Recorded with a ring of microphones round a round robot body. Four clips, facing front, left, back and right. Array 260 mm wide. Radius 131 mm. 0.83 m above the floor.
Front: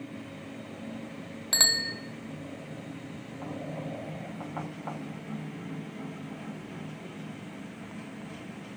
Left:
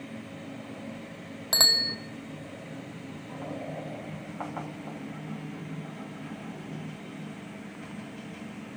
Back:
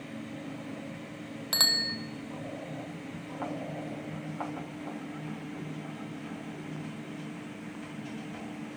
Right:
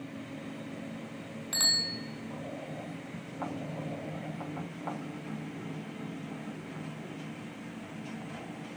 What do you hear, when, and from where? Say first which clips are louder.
1.5 s a bicycle bell: left 7 dB, front 2 dB; 70° left, 2.5 m